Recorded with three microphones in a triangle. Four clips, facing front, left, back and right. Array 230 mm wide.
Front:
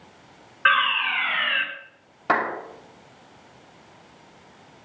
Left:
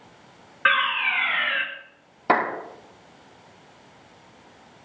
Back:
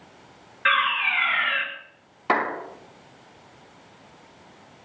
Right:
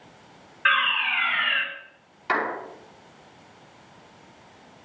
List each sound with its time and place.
0.7 s a fire alarm: 70° left, 3.5 m
2.3 s a clap: 80° left, 3 m